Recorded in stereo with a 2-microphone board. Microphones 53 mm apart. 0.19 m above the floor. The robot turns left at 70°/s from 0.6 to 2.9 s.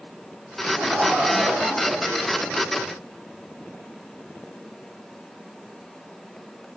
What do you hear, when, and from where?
0.7 s laughter: 105° right, 3 m; by 2.9 s 100° left, 3 m